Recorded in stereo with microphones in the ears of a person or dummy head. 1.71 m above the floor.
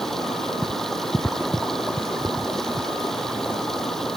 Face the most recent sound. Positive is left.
turn(degrees=0)  # may be behind; listen again after turning